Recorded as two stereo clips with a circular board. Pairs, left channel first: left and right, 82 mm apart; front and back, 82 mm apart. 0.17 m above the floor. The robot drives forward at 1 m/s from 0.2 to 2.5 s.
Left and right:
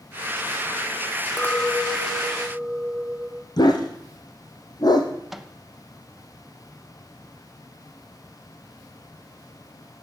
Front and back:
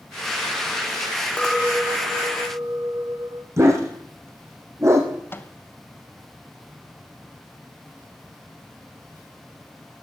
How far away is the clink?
About 0.9 m.